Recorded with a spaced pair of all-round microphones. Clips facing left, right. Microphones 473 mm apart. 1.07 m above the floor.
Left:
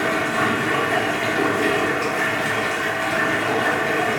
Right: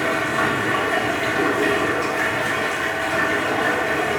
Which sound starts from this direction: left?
Running water, at 0.0 s.